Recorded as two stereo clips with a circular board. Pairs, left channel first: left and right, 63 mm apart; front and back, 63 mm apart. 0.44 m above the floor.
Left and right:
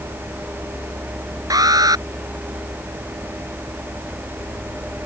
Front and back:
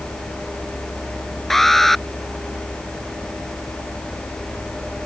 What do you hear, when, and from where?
1.5 s an alarm: 85° right